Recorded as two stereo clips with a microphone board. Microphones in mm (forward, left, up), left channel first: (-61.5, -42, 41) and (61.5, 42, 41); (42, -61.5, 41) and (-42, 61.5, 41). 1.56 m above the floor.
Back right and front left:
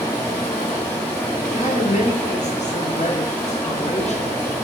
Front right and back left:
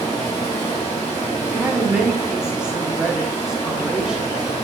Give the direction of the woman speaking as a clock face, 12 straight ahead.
5 o'clock.